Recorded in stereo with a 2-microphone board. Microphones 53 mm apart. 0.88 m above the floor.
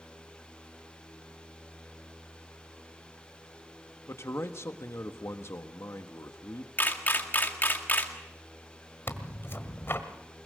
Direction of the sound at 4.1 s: 60° left (ahead or behind).